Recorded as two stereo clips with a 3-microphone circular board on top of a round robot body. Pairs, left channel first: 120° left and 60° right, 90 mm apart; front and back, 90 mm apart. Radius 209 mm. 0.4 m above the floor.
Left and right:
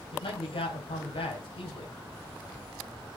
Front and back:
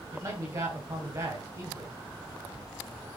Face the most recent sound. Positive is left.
turn(degrees=130)